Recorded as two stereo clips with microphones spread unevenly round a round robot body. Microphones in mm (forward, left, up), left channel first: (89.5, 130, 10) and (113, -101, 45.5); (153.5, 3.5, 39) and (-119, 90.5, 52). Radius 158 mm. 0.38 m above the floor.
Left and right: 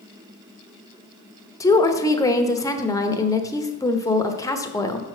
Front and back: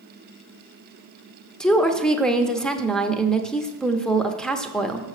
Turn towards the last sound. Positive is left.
turn(degrees=60)